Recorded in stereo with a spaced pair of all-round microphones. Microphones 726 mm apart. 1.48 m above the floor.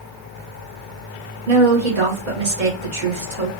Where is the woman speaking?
85° right, 1.7 m.